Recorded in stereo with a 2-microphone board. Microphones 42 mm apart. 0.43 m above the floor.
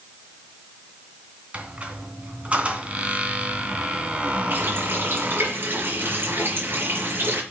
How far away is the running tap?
About 5 m.